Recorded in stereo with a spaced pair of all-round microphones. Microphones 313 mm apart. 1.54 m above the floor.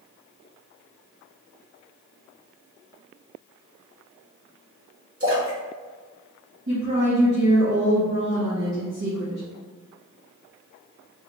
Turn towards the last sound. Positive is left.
turn(degrees=-60)  # may be behind; listen again after turning